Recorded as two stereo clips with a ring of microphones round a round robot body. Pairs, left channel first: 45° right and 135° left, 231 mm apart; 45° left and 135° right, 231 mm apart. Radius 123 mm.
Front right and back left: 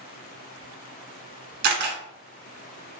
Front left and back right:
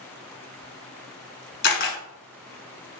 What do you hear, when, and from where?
1.6 s a camera shutter: 90° left, 0.7 m